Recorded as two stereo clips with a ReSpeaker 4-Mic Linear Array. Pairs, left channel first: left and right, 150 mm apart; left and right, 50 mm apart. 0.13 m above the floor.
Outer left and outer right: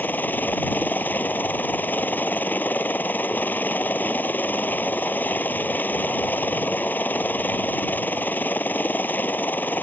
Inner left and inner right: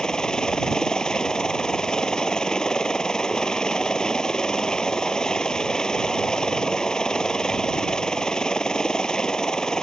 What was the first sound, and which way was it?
A helicopter, 10° left (ahead or behind).